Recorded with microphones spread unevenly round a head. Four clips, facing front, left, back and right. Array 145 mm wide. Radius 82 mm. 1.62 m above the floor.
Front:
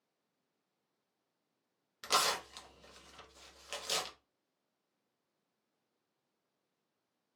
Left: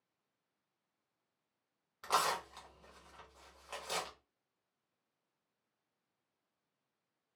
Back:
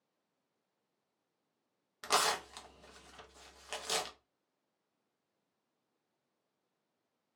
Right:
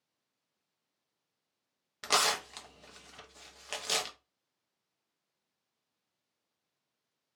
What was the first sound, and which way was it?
Tearing paper, 100° right.